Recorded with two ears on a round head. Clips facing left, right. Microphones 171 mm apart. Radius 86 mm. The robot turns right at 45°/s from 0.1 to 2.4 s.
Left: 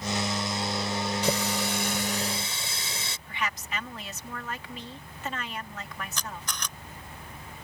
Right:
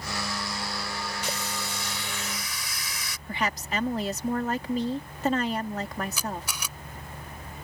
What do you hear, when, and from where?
1.2 s a running tap: 100° left; by 3.2 s 155° left
3.3 s a woman speaking: 35° right (ahead or behind)
6.2 s a camera shutter: 10° right (ahead or behind)